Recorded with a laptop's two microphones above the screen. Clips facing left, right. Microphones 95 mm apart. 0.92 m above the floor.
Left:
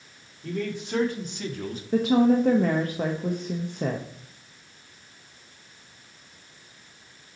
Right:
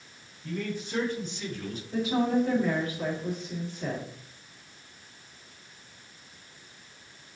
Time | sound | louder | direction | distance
0.4 | a man speaking | left 3 dB | 75° left (ahead or behind) | 2.5 m
1.9 | a woman speaking | left 6 dB | 60° left (ahead or behind) | 0.7 m